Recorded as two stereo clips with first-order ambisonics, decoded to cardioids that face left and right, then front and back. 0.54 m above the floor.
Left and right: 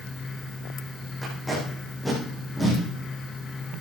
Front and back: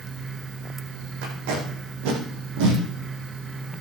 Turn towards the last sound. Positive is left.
turn(degrees=175)